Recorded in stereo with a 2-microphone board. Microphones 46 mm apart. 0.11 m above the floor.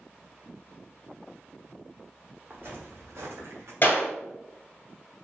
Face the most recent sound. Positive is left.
turn(degrees=40)  # may be behind; listen again after turning